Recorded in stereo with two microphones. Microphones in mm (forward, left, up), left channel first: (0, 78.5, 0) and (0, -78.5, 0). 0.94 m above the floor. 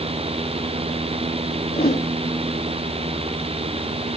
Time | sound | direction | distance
1.7 | a whoosh | 85° left | 2.5 m